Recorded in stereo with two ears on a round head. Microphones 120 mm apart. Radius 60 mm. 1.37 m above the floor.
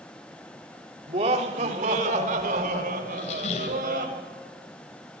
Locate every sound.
1.1 s laughter: 50° right (ahead or behind), 3 m; by 4.0 s 75° right (ahead or behind), 6.5 m
3.0 s a squeak: 60° left (ahead or behind), 3 m